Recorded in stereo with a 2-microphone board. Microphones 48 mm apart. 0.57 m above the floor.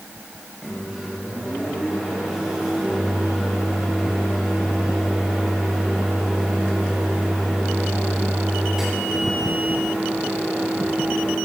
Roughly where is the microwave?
Centre.